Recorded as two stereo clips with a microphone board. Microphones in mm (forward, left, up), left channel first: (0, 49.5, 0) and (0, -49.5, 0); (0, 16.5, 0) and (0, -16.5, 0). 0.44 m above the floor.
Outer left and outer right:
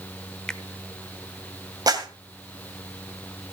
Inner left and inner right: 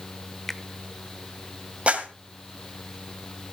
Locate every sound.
0.5 s a finger snap: 10° left (ahead or behind), 0.8 m
1.9 s a clap: 45° right (ahead or behind), 2 m